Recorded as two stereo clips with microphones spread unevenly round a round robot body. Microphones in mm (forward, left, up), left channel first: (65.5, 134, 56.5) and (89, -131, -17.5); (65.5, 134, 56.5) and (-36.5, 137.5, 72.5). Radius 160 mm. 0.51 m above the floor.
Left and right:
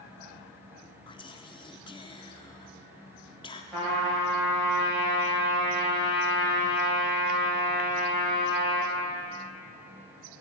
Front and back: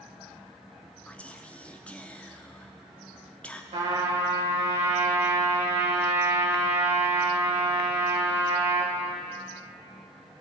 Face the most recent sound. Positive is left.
turn(degrees=-170)